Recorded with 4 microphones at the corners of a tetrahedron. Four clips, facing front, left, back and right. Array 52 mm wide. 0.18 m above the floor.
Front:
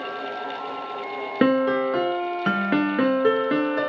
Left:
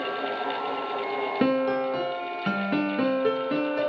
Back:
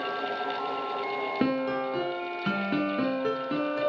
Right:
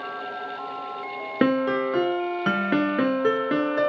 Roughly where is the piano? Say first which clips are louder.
Right 3 dB, front 10 dB; ahead right.